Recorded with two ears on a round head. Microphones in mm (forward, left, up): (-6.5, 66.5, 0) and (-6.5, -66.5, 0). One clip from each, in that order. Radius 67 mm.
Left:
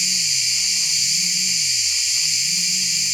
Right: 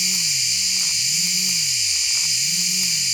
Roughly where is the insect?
Centre.